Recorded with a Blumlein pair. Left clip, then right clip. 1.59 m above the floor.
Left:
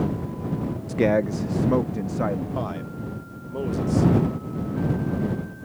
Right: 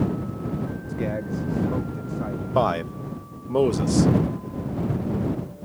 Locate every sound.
0.9 s a man speaking: 30° left; by 2.5 s 25° left
2.5 s a man speaking: 30° right